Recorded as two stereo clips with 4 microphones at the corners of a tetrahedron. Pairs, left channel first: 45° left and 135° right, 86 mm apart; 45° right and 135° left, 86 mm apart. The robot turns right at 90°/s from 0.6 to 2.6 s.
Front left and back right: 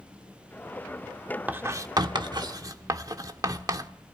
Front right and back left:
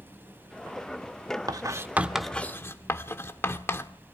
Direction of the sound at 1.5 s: 160° left.